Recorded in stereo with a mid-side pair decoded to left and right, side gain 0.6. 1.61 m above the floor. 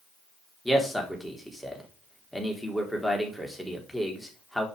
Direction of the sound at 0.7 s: Straight ahead.